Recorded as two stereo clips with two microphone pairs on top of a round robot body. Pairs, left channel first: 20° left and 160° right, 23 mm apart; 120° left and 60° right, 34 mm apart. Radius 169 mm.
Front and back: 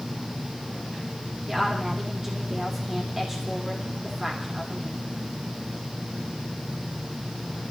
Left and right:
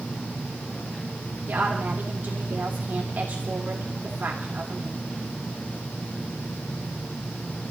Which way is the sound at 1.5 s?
85° right.